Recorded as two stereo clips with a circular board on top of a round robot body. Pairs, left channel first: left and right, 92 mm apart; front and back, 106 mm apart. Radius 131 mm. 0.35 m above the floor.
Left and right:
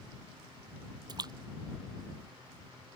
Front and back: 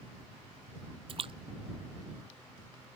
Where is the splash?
140° right.